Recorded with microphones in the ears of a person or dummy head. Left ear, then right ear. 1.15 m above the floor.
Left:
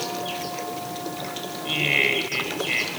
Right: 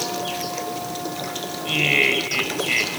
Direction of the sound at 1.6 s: Centre (ahead or behind).